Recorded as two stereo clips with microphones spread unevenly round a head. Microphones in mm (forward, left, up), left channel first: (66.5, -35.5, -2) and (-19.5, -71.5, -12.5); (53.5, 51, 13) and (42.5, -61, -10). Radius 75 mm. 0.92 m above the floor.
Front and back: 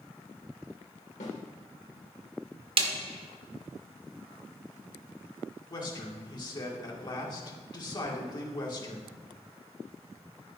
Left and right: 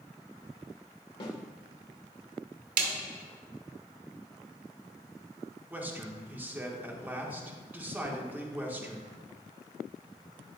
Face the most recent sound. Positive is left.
turn(degrees=-20)